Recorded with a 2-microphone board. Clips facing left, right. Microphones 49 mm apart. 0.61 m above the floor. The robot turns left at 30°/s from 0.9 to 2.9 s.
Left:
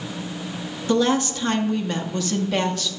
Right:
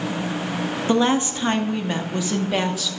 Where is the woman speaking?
25° right (ahead or behind), 0.9 m; by 2.9 s 5° right (ahead or behind), 0.9 m.